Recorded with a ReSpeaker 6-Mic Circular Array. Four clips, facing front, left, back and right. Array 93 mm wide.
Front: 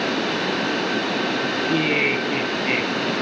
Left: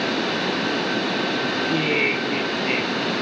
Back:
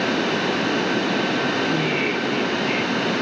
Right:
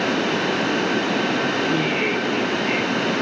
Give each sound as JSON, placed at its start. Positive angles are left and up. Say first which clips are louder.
{"t": 1.7, "sound": "laughter", "louder": "right 1 dB, front 1 dB", "azimuth_deg": 15, "distance_m": 4.5}